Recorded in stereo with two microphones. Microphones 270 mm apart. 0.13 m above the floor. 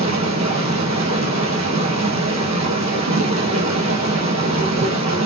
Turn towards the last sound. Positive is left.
turn(degrees=-80)